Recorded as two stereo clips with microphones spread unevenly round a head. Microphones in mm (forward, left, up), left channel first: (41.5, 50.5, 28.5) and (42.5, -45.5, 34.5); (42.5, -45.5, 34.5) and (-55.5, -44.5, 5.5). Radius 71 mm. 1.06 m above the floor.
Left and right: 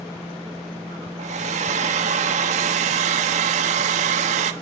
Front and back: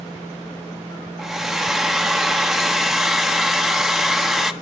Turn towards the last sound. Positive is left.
turn(degrees=-95)